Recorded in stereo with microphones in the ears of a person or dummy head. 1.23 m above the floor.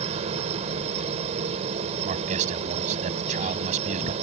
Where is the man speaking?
40° right (ahead or behind).